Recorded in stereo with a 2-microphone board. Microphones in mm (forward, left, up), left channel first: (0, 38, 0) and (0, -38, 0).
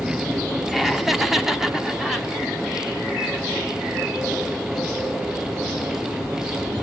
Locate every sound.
0.7 s laughter: centre (ahead or behind), 0.9 m; by 2.3 s 5° right (ahead or behind), 1.1 m